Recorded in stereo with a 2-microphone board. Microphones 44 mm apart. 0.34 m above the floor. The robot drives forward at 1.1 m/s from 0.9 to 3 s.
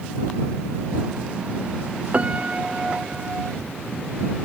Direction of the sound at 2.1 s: 30° right (ahead or behind).